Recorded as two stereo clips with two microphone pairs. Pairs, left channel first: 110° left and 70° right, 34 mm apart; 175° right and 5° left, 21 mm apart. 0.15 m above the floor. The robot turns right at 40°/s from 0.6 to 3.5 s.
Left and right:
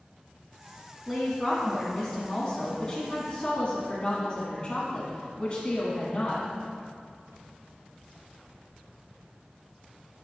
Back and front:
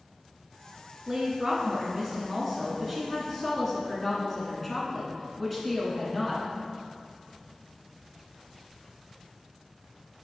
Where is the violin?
I don't hear a violin.